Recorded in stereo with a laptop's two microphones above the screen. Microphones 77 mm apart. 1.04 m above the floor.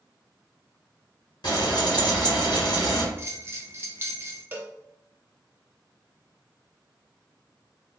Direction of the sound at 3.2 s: 30° right (ahead or behind).